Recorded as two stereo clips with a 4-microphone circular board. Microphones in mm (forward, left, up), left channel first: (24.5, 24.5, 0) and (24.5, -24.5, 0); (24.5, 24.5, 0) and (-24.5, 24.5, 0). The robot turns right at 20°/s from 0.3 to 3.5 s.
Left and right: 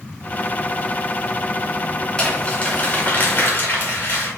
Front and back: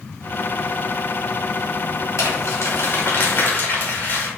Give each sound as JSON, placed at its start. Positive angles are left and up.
{"t": 2.2, "sound": "crumpling", "azimuth_deg": 20, "distance_m": 3.5}